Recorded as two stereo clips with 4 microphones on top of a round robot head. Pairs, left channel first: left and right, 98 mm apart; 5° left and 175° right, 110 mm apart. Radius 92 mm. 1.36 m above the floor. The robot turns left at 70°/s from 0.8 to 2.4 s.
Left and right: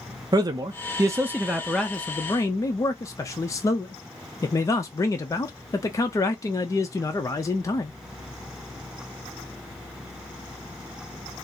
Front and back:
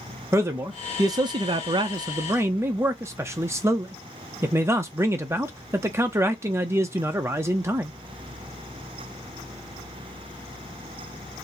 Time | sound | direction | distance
0.3 | a man speaking | 115° right | 0.6 m